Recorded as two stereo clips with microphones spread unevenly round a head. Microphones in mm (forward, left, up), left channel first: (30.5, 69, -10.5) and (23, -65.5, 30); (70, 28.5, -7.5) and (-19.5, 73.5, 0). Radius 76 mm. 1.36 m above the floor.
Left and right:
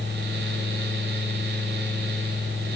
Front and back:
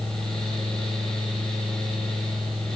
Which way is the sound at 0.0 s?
110° right.